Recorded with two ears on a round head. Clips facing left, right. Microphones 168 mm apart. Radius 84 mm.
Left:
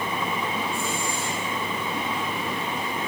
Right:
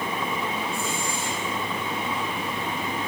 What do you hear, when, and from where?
Only background noise.